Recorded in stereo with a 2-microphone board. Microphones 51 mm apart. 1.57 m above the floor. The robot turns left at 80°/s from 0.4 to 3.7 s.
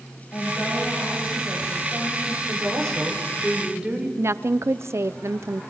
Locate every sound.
0.3 s a woman speaking: 55° left, 7 m; by 2.4 s 105° right, 7 m
2.5 s a woman speaking: 65° right, 4.5 m; by 4.1 s 160° right, 4.5 m
4.2 s a woman speaking: 60° right (ahead or behind), 0.7 m